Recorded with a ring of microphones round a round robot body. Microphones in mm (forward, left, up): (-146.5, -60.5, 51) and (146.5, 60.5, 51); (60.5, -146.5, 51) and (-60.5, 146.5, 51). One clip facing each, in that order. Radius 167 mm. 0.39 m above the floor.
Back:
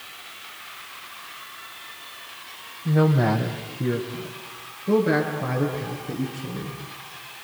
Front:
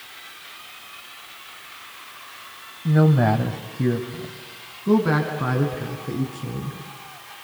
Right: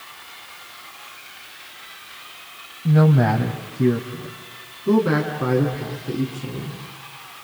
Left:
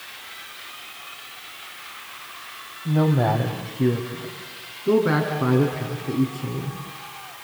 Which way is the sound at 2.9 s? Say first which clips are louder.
Front 2 dB, right 3 dB; 25° right.